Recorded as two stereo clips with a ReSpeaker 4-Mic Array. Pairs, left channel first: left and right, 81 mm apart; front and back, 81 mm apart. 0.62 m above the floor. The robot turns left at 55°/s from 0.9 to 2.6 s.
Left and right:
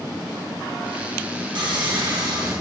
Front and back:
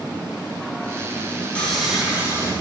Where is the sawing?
75° right, 2.5 m; by 2.5 s 130° right, 2.5 m.